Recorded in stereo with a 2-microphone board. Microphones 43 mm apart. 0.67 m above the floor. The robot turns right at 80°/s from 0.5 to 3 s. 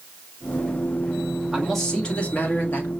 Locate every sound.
1.5 s a man speaking: 10° right, 1.6 m; by 2.9 s 100° left, 1.6 m